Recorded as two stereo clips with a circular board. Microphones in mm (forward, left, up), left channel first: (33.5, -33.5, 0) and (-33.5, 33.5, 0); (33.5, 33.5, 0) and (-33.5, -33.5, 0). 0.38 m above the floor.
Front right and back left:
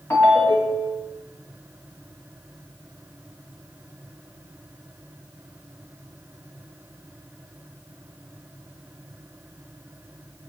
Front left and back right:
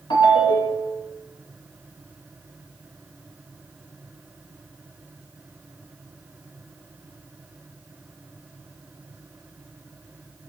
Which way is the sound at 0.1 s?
20° left.